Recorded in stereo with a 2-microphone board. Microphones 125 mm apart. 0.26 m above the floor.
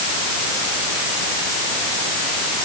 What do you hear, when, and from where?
Only background noise.